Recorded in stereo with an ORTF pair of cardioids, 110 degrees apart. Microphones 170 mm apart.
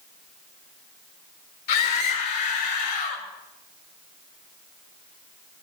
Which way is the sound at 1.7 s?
70° left.